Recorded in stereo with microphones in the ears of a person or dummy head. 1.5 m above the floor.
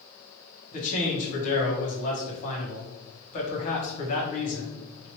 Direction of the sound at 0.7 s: 40° left (ahead or behind).